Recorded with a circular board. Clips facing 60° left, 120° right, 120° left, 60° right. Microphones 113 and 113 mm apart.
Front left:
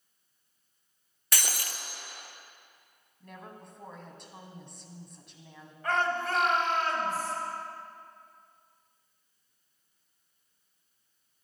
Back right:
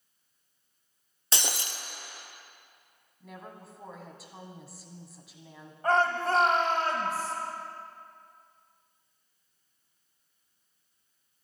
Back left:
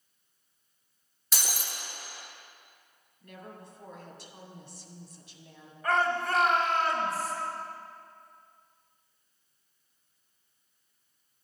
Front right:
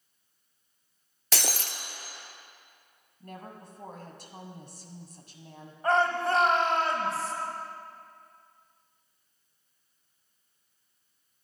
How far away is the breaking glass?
About 0.8 m.